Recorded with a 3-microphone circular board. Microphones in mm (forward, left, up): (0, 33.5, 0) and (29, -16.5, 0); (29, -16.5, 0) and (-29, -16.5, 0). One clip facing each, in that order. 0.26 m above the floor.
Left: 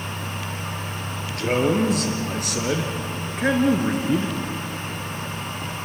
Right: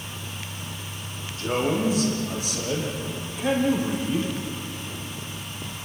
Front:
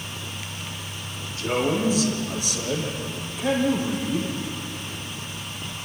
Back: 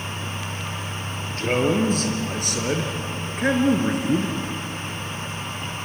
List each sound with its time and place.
1.4 s a man speaking: 140° left, 5 m; by 4.4 s 160° left, 3 m